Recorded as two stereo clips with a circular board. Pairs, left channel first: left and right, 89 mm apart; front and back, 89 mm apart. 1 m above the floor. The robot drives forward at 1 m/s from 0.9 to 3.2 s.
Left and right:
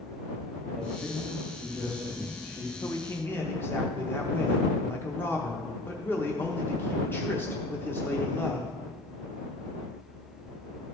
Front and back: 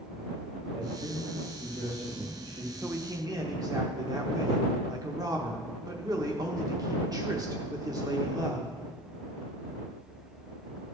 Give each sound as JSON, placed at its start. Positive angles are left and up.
{"t": 0.8, "sound": "a man speaking", "azimuth_deg": 150, "distance_m": 2.0}
{"t": 2.8, "sound": "a man speaking", "azimuth_deg": 115, "distance_m": 0.6}